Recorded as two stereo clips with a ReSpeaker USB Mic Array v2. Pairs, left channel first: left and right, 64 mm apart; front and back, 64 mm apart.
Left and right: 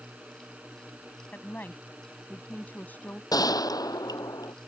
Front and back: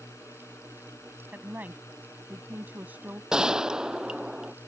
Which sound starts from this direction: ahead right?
A drone, at 0.0 s.